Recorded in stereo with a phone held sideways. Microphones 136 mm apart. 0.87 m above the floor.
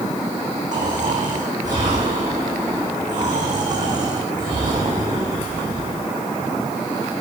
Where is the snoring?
65° right (ahead or behind), 9 m.